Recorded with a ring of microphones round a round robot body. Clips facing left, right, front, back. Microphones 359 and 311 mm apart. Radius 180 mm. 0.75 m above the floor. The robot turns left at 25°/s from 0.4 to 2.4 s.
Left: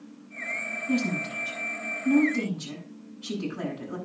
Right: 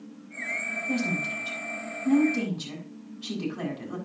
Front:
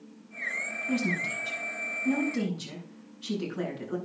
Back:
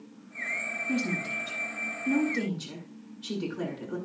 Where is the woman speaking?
5° left, 7 m; by 4.0 s 35° right, 7 m.